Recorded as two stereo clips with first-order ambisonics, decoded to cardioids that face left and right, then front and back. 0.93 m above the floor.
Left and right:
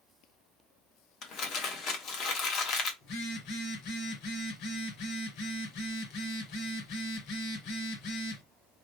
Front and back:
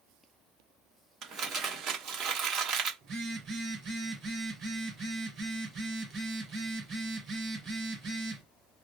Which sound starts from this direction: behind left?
Crumpling, at 1.2 s.